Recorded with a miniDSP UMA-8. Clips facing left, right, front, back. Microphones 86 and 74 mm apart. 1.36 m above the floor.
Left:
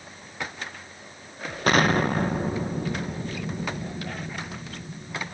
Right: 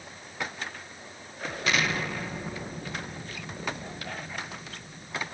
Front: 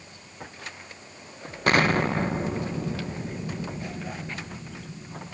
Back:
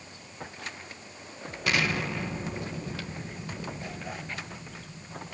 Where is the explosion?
45° left, 1.1 m.